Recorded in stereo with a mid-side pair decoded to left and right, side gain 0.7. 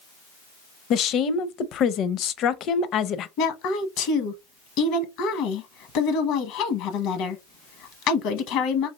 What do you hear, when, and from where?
0.9 s a woman speaking: 50° left, 0.5 m
3.4 s a woman speaking: 65° left, 0.8 m